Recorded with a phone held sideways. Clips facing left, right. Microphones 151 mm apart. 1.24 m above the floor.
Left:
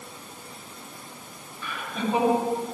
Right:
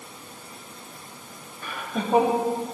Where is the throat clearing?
I don't hear throat clearing.